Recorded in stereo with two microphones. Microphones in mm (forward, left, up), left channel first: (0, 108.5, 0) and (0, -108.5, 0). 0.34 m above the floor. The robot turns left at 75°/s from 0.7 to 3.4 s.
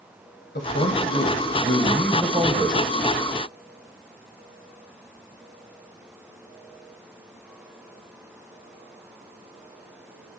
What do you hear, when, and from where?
0.6 s a man speaking: 100° left, 1.5 m; by 2.8 s 55° right, 1.5 m